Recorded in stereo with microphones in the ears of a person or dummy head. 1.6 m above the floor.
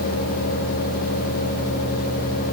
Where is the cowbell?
I don't hear a cowbell.